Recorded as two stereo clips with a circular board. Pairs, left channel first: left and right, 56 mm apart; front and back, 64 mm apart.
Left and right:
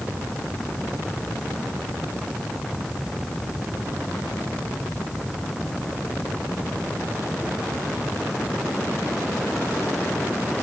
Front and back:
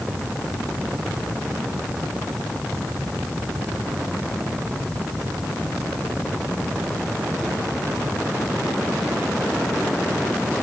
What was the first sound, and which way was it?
Only background noise.